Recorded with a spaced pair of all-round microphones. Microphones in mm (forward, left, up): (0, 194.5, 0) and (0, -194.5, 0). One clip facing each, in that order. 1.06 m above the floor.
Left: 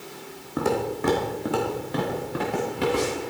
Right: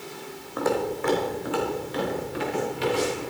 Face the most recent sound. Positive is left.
turn(degrees=70)  # may be behind; listen again after turning